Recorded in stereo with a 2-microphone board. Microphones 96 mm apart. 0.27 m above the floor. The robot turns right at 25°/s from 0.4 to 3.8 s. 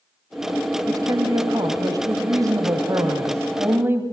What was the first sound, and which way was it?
A woman speaking, 110° right.